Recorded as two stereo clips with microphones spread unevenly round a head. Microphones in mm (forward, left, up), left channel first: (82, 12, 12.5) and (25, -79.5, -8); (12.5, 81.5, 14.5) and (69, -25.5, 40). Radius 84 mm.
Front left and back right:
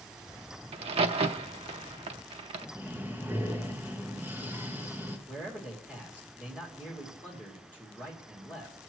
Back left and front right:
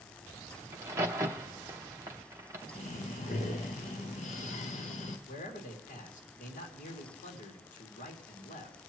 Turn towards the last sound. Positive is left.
turn(degrees=145)